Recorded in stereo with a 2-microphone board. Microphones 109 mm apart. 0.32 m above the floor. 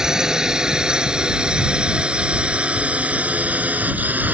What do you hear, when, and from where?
0.0 s a drone: 5° right (ahead or behind); by 4.3 s 15° right (ahead or behind)